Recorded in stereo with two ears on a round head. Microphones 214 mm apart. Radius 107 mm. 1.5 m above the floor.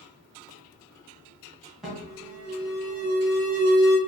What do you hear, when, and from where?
1.8 s an alarm: centre (ahead or behind), 1.2 m